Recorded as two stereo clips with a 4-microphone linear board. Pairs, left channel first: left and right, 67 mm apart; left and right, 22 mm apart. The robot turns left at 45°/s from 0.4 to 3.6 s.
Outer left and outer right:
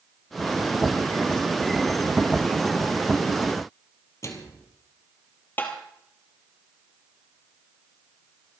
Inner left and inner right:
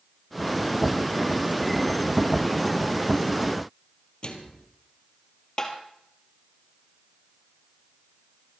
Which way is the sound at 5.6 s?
30° left (ahead or behind).